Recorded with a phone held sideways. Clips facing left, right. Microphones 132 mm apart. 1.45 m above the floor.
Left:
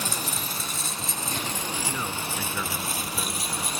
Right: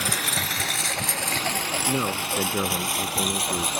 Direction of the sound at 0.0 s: 75° right (ahead or behind).